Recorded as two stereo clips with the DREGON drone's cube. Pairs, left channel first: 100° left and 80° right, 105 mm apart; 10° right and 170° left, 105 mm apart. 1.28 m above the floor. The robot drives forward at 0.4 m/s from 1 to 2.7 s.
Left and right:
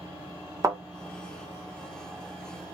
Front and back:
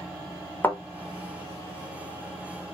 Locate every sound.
0.6 s a thud: 70° right, 0.7 m